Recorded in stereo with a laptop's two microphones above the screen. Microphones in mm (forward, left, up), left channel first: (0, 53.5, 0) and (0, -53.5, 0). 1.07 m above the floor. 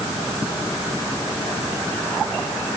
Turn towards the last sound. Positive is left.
No sound to turn to.